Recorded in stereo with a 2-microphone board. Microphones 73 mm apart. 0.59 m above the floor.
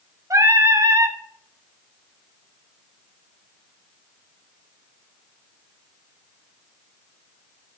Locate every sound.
0.3 s singing: 45° right (ahead or behind), 0.9 m